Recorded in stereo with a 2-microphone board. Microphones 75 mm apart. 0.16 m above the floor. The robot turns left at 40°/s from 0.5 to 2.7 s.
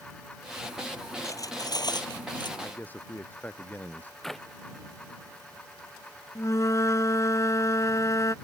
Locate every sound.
1.2 s cutlery clinking: 135° left; by 2.5 s 85° left
2.6 s a man speaking: 25° left (ahead or behind)
4.2 s a clap: 5° left (ahead or behind)
6.3 s a flute: 45° left (ahead or behind)